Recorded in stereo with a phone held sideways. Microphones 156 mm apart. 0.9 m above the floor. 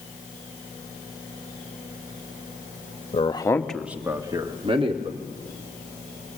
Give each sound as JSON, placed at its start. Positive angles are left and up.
{"t": 3.1, "sound": "a man speaking", "side_deg": 40, "distance_m": 1.1}